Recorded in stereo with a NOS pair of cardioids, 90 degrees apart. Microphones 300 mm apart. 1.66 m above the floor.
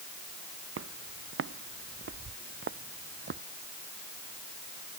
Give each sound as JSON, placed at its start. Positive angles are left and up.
{"t": 0.8, "sound": "footsteps", "azimuth_deg": -50}